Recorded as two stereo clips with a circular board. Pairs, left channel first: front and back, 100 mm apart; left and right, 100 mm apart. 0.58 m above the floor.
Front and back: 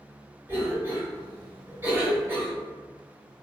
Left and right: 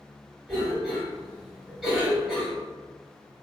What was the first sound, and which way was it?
A cough, 165° right.